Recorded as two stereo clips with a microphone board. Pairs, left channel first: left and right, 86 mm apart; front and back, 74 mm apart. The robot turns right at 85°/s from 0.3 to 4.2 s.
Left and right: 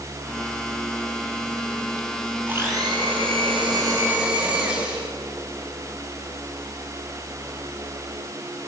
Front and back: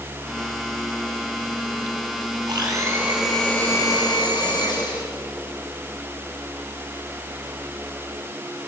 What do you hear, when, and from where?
2.5 s a blender: 160° right, 6 m; by 5.1 s 15° right, 6 m